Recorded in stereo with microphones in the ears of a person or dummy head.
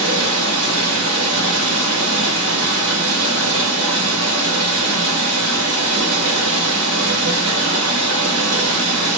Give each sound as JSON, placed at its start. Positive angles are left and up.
{"t": 0.0, "sound": "running water", "side_deg": -65, "distance_m": 2.0}